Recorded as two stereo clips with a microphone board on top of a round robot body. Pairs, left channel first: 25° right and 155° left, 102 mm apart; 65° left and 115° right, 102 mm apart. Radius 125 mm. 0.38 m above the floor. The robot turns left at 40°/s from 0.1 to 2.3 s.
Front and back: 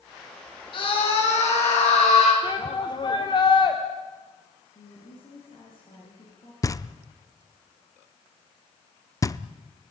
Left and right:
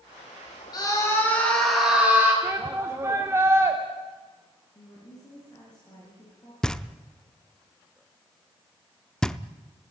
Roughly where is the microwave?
No microwave in this recording.